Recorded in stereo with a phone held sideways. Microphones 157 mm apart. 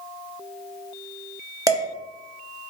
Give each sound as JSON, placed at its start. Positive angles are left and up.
{"t": 1.7, "sound": "dishes clattering", "side_deg": -20, "distance_m": 0.6}